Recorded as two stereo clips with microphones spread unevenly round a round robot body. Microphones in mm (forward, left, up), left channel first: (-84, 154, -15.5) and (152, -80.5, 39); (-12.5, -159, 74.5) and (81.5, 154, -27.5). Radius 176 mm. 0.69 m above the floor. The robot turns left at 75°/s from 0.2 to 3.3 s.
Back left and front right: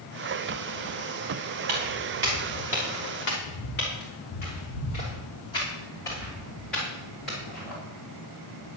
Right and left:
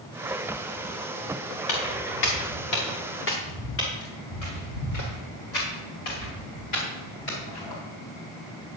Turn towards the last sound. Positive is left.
turn(degrees=-130)